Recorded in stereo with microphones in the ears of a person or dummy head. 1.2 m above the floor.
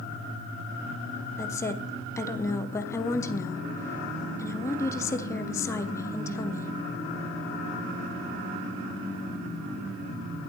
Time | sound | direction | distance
1.4 | a woman speaking | 20° left (ahead or behind) | 0.8 m